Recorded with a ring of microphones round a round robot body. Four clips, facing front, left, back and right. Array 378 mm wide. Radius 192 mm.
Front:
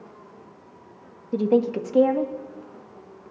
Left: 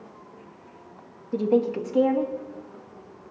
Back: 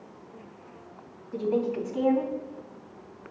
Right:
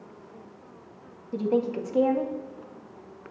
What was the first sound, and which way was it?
A woman speaking, 5° left.